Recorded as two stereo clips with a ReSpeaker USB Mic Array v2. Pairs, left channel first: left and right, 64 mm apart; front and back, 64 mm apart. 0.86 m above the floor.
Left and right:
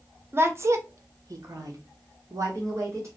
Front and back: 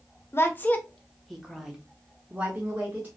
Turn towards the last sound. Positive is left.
turn(degrees=-120)